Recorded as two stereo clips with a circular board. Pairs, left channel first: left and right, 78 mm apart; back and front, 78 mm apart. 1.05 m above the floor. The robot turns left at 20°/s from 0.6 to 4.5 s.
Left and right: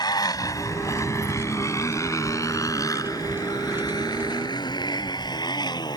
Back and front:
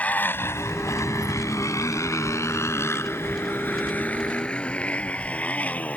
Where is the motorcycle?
110° left.